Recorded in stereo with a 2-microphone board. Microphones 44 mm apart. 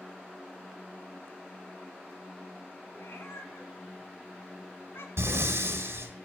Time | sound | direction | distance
2.9 | a cat meowing | 65° left (ahead or behind) | 1.6 m
5.2 | breathing | 65° right (ahead or behind) | 1.3 m